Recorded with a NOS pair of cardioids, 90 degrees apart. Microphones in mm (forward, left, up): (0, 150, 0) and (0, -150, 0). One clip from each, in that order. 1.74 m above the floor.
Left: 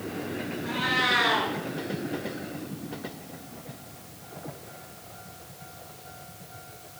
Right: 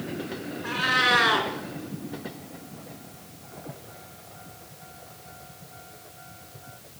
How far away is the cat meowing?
About 4.5 m.